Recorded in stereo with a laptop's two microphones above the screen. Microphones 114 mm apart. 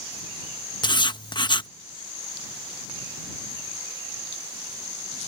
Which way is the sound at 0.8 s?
45° left (ahead or behind).